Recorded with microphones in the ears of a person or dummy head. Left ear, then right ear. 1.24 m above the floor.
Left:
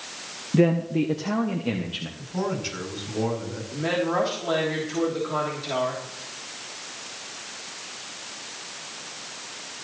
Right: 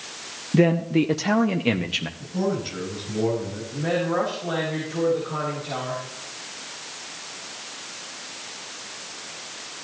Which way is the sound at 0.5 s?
5° right (ahead or behind).